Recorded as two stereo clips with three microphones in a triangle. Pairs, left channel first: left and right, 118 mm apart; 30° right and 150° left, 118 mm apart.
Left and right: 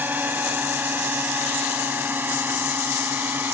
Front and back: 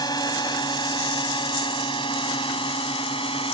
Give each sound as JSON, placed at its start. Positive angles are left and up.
{"t": 0.0, "sound": "a drone", "azimuth_deg": -25}